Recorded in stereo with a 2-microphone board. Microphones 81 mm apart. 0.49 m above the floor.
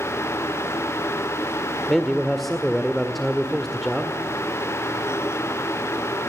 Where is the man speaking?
5° left (ahead or behind), 1.5 m.